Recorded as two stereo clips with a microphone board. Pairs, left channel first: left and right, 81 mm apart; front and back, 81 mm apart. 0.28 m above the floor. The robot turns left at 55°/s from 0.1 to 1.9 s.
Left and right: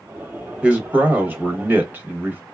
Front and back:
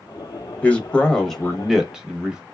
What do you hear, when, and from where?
0.6 s a man speaking: 35° right, 1.0 m; by 2.4 s 105° right, 1.0 m